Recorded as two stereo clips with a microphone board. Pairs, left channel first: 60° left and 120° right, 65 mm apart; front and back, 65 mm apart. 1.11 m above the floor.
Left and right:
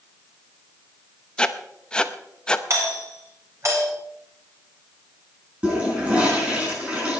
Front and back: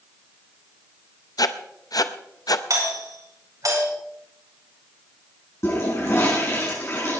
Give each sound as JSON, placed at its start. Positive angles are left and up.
{"t": 1.4, "sound": "writing", "azimuth_deg": -15, "distance_m": 0.8}
{"t": 2.7, "sound": "a doorbell", "azimuth_deg": -160, "distance_m": 5.5}
{"t": 5.6, "sound": "a toilet flushing", "azimuth_deg": -45, "distance_m": 6.0}